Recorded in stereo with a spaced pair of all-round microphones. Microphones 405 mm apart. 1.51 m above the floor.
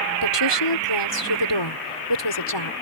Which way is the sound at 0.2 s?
85° left.